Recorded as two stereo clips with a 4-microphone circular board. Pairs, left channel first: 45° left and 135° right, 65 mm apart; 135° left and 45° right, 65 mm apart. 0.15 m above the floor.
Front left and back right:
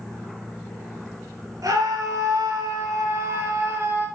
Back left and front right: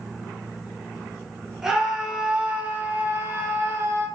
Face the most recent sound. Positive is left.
turn(degrees=-85)